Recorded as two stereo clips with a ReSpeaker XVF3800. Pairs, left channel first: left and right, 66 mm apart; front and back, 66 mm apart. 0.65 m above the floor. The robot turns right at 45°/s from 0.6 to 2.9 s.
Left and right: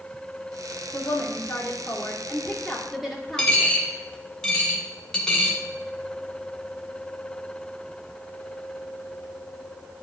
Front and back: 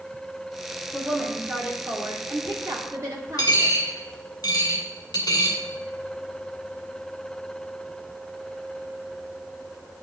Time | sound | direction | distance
0.9 | a woman speaking | 95° left | 1.8 m
3.4 | a dropped coin | 10° left | 1.9 m